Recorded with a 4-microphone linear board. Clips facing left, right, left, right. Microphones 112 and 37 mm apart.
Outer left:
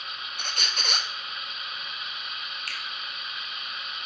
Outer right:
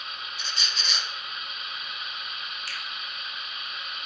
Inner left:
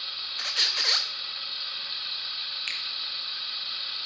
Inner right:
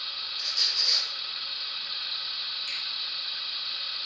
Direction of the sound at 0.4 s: 55° left (ahead or behind).